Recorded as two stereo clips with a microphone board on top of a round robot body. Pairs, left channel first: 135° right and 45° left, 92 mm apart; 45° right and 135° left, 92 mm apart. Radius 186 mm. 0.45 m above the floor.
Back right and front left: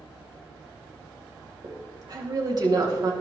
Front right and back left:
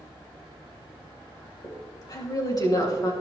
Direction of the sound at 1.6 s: Straight ahead.